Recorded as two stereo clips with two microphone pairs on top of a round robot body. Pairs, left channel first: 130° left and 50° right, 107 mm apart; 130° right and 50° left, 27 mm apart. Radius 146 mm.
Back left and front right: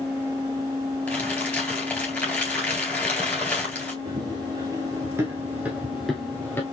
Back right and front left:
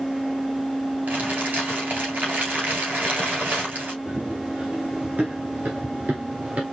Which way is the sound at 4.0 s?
5° left.